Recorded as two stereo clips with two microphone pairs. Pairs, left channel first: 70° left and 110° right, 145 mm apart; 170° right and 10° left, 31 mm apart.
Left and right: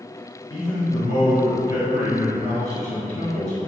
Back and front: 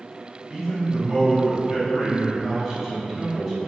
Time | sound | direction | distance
0.5 | a man speaking | 95° left | 1.9 m